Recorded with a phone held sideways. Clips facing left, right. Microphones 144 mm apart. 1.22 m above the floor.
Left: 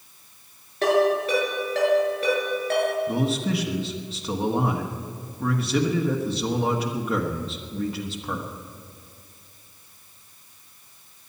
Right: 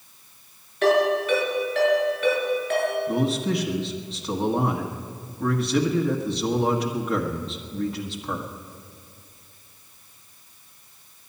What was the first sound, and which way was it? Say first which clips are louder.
A ringtone: even; 35° left (ahead or behind).